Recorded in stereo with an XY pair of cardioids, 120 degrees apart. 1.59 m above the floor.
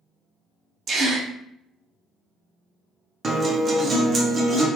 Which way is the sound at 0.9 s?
45° right.